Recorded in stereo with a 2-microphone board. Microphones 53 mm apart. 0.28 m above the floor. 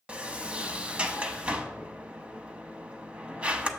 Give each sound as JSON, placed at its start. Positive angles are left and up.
{"t": 0.1, "sound": "a sliding door", "side_deg": -20, "distance_m": 0.6}